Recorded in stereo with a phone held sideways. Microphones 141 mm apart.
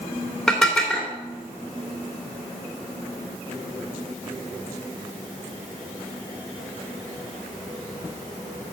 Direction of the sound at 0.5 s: 5° left (ahead or behind).